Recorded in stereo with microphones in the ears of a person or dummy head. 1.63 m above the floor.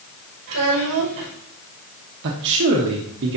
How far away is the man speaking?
About 1.1 m.